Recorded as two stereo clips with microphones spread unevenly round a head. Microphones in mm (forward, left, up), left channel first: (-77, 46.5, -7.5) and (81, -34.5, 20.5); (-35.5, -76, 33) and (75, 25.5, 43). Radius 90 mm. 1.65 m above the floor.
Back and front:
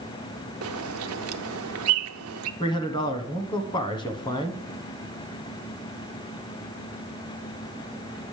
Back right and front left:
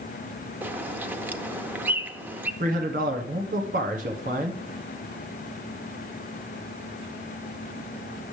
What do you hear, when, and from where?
0.6 s a bird: 35° right, 0.6 m
2.6 s a man speaking: 85° left, 1.0 m